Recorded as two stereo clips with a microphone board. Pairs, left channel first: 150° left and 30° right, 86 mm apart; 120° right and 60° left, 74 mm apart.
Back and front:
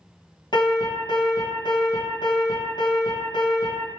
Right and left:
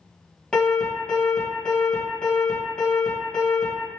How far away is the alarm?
About 2 m.